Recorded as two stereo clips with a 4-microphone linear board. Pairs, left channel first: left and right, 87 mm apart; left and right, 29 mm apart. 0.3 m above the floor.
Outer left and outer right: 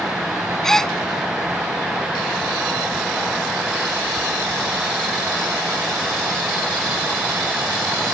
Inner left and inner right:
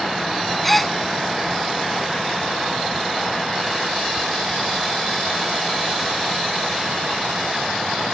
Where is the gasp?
5° left (ahead or behind).